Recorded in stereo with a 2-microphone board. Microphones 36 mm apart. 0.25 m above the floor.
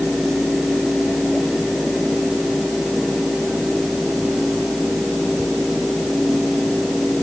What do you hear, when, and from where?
Only background noise.